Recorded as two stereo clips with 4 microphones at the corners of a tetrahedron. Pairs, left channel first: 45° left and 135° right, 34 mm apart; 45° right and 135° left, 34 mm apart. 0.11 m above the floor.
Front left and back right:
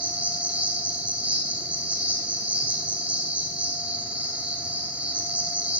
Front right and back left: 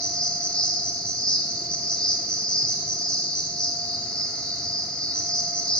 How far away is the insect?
About 1.1 m.